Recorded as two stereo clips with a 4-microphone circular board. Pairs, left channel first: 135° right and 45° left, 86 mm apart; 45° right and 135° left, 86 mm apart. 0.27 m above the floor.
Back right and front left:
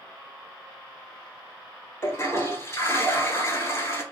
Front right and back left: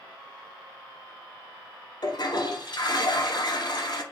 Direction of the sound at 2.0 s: 80° right.